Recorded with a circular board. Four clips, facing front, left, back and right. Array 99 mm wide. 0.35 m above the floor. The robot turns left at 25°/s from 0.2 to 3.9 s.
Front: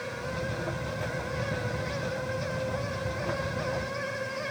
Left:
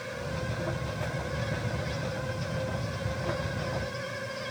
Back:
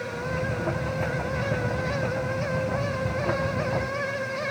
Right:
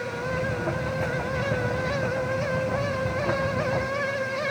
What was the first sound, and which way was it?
Only background noise.